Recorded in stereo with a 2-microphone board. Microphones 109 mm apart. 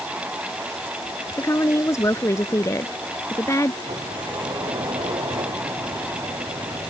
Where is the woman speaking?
30° left (ahead or behind).